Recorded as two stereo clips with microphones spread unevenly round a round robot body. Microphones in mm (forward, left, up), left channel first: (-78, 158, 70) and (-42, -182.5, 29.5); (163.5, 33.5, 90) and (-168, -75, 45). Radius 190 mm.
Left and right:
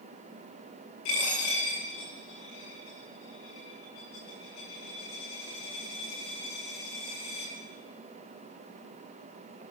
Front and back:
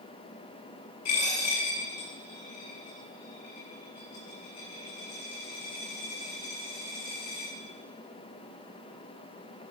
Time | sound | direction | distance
1.1 | a dropped coin | 65° left | 7.5 m